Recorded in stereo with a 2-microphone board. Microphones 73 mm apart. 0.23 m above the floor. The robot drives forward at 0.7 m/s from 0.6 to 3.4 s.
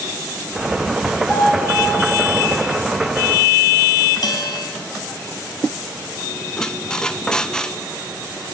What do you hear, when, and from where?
1.3 s a piano: centre (ahead or behind), 5.5 m
4.2 s a bell: 60° left (ahead or behind), 2.5 m
6.6 s a squeak: 10° left (ahead or behind), 0.5 m